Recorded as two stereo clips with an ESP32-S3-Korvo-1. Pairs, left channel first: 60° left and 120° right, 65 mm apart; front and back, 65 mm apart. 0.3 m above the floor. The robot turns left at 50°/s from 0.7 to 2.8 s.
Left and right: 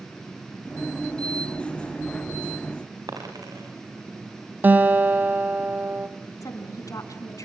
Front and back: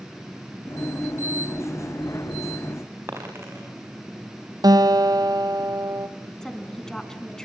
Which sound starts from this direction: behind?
A guitar, at 4.6 s.